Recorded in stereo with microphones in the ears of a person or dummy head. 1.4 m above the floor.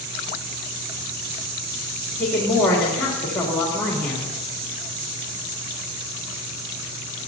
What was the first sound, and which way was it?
A woman speaking, 10° left (ahead or behind).